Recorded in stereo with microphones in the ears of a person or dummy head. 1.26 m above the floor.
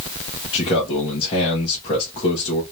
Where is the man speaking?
30° left (ahead or behind), 1.5 m.